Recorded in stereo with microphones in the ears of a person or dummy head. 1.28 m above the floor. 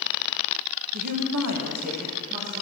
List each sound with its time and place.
0.9 s a woman speaking: 50° right (ahead or behind), 1.0 m; by 2.6 s 25° right (ahead or behind), 2.0 m